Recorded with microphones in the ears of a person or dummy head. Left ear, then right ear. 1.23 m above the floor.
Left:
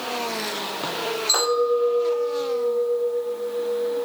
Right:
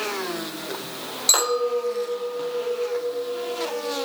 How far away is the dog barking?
No dog barking in this recording.